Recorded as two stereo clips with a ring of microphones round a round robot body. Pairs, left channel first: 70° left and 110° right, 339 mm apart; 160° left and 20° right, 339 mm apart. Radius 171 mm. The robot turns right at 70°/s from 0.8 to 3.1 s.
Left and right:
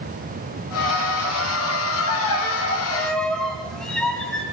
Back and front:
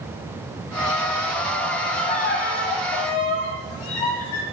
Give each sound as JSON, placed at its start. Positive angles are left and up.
{"t": 2.0, "sound": "a violin", "azimuth_deg": 75, "distance_m": 1.5}